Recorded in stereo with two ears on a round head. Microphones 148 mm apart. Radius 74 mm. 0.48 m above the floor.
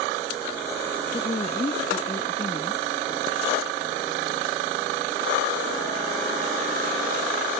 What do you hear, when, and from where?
1.1 s a woman speaking: 30° left (ahead or behind)